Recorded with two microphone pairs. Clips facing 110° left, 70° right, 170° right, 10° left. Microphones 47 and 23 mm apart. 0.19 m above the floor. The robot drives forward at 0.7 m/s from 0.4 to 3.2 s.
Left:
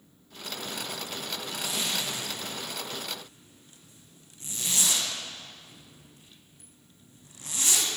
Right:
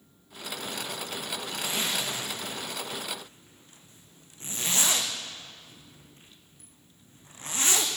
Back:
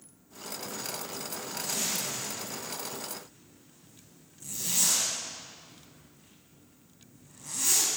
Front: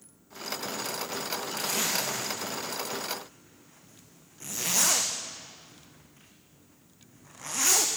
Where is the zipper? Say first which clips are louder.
Right 2 dB, front 3 dB; 10° right, 4.5 m; by 7.9 s 15° right, 3.5 m.